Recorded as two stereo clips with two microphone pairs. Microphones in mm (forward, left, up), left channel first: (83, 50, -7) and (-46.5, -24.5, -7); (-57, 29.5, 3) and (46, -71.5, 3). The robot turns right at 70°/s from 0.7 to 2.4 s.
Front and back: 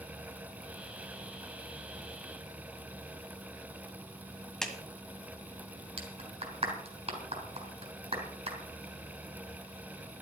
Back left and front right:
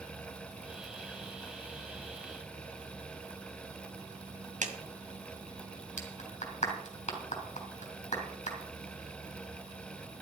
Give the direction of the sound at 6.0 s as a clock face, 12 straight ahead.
6 o'clock.